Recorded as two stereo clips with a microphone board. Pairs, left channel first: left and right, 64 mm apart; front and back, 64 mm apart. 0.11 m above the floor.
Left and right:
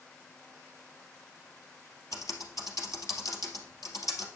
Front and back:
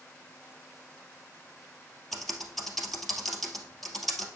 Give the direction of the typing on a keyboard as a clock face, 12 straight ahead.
9 o'clock.